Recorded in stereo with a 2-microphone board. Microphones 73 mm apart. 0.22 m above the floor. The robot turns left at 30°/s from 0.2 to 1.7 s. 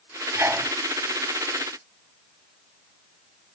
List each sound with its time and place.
0.3 s a sneeze: 30° right (ahead or behind), 1.8 m